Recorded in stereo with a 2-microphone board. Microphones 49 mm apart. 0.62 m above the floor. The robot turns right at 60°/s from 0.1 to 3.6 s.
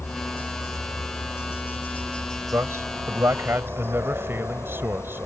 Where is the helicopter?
30° left; by 5.3 s 120° right.